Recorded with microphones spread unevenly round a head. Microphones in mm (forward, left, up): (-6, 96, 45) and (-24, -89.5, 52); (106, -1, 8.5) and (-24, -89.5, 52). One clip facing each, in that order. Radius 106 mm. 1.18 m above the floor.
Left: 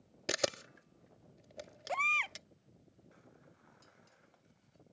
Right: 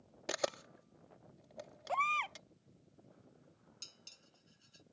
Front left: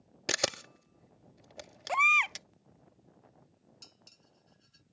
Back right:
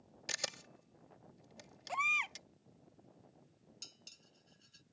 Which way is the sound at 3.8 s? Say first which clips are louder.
Left 2 dB, front left 2 dB; 90° right.